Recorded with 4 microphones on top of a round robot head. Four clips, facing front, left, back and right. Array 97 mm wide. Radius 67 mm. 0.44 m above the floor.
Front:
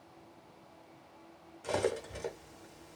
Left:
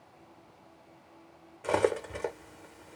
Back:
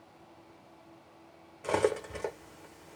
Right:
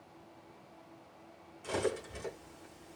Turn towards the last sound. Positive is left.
turn(degrees=120)